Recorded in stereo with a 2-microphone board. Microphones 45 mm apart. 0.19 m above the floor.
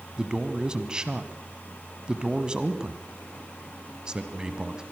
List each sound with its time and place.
0.2 s a man speaking: 20° right (ahead or behind), 1.4 m